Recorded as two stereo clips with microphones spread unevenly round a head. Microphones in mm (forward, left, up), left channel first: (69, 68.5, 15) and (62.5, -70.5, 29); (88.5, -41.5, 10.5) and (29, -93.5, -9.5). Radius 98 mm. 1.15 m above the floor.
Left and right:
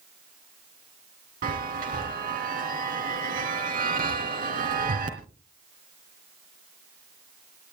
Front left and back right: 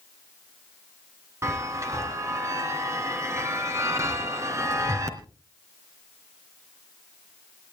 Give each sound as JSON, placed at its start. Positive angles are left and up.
{"t": 1.4, "sound": "a chime", "azimuth_deg": -80, "distance_m": 3.0}